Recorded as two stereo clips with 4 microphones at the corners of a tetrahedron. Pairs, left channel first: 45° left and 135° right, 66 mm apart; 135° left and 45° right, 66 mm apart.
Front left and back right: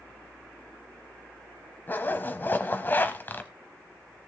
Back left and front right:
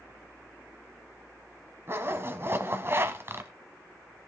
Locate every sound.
1.9 s a zipper: 5° right, 1.3 m